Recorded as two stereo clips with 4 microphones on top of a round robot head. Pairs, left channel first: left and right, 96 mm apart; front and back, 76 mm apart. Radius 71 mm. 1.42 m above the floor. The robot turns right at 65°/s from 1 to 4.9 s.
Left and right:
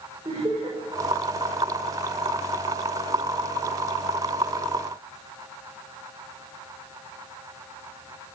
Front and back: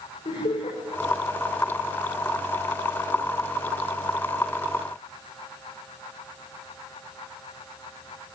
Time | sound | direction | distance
0.2 | laughter | 30° right | 6.5 m